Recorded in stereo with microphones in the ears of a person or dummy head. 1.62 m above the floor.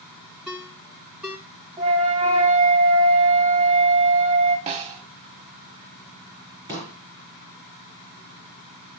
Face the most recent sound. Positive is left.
turn(degrees=-25)  # may be behind; listen again after turning